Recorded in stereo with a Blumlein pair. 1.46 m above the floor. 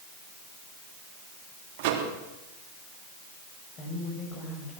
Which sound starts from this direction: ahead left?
A woman speaking, at 3.8 s.